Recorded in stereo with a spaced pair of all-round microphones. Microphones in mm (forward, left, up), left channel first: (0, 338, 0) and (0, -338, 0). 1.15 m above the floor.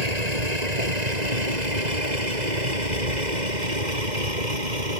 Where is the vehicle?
60° right (ahead or behind); by 5.0 s 85° right.